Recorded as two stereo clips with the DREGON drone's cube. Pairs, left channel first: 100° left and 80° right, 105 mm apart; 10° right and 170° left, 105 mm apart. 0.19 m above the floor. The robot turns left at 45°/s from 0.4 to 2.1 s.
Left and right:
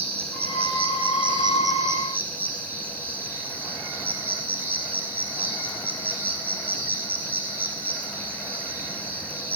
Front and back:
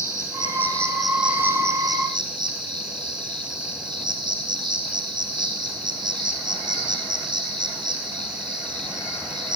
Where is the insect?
70° right, 1.0 m; by 9.6 s 150° right, 1.0 m.